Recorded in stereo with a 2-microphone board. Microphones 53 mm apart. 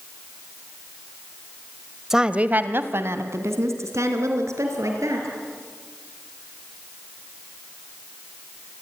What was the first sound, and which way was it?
A woman speaking, 10° right (ahead or behind).